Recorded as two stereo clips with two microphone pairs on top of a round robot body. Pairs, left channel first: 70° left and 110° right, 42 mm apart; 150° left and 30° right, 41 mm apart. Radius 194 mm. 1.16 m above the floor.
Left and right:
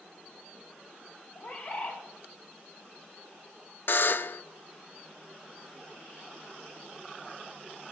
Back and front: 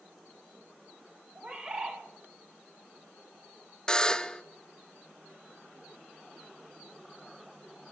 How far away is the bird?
About 2 m.